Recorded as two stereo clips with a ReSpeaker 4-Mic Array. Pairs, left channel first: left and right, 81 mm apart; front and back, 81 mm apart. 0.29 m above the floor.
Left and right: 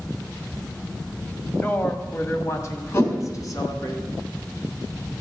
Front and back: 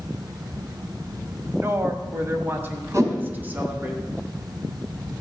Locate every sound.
1.6 s a woman speaking: 145° left, 1.3 m; by 3.9 s 115° left, 2 m
2.9 s a whoosh: 135° left, 3.5 m